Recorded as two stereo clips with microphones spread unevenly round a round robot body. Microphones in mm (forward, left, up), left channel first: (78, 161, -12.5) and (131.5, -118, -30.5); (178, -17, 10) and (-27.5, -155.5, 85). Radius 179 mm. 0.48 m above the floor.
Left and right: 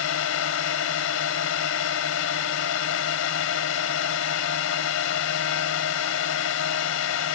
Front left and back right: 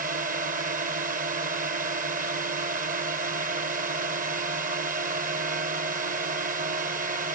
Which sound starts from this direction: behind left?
A drone, at 0.0 s.